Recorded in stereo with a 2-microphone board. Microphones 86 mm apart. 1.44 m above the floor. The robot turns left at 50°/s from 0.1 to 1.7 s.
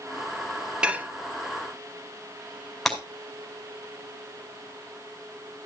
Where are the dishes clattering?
10° right (ahead or behind), 1.2 m; by 1.1 s 25° right (ahead or behind), 1.2 m.